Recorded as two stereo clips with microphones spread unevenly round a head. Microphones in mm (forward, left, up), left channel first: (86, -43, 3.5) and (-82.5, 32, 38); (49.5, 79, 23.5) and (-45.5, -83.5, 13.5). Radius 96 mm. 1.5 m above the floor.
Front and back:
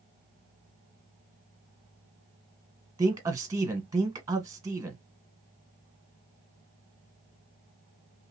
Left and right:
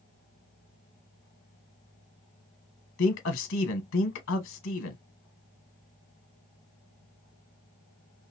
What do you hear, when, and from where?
3.0 s a man speaking: 85° left, 1.1 m